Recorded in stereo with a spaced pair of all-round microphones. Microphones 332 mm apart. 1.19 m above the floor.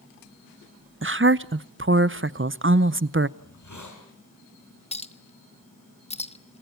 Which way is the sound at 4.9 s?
20° left (ahead or behind).